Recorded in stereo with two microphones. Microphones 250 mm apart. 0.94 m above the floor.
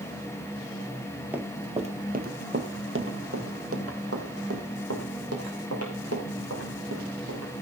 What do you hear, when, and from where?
1.3 s running footsteps: 10° right (ahead or behind), 1.2 m; by 7.6 s 80° right, 5.5 m